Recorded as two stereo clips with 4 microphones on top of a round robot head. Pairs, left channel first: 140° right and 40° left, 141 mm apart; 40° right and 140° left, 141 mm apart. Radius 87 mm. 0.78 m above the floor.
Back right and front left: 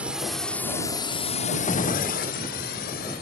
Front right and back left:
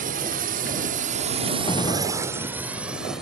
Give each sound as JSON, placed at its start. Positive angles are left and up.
{"t": 0.0, "sound": "a drone", "azimuth_deg": 120}
{"t": 1.7, "sound": "a gunshot", "azimuth_deg": -95}